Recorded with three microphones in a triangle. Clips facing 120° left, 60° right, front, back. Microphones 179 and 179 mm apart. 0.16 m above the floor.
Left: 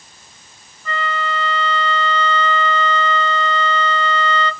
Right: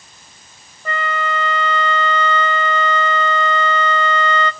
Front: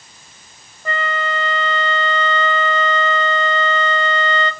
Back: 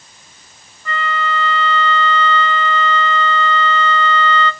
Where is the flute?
35° right, 0.5 m.